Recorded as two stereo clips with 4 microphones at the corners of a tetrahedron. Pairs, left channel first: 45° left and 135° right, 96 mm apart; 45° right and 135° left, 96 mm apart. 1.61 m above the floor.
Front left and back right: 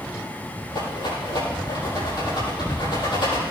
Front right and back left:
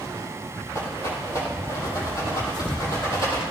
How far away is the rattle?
About 8 m.